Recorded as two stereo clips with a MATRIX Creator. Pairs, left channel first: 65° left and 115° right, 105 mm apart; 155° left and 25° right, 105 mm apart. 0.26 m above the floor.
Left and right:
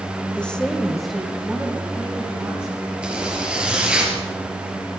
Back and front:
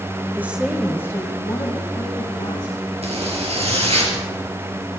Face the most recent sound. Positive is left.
turn(degrees=-35)